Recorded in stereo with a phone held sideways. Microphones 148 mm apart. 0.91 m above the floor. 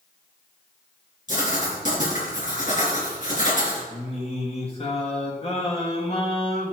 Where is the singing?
40° left (ahead or behind), 1.7 m.